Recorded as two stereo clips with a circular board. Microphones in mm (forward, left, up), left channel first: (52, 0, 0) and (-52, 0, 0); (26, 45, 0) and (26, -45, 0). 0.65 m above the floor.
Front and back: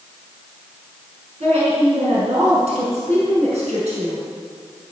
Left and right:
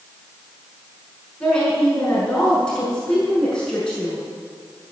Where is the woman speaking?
170° left, 6.5 m.